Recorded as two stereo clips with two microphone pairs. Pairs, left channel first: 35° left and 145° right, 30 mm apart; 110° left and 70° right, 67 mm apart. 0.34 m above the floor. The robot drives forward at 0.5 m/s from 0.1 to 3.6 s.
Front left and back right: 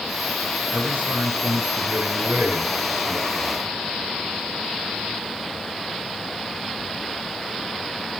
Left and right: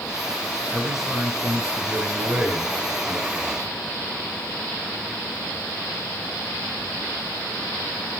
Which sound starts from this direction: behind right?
A man speaking, at 0.7 s.